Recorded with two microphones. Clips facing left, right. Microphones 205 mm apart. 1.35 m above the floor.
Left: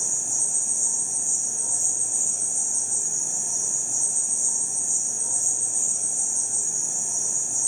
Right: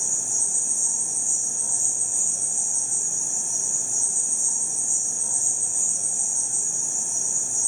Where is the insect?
25° left (ahead or behind), 1.0 m.